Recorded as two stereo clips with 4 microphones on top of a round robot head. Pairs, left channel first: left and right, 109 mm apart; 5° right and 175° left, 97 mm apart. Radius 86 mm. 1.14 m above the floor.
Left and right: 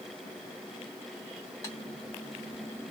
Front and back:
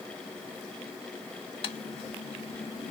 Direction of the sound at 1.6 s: 20° left.